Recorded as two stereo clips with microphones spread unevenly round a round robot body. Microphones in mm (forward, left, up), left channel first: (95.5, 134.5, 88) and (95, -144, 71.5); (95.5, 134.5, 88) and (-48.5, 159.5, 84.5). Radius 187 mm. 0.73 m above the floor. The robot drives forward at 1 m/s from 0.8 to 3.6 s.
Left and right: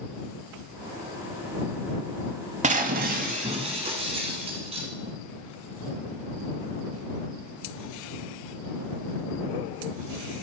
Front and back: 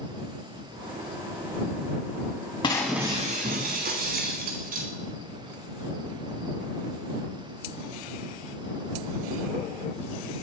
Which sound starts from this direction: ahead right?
Breaking glass, at 2.6 s.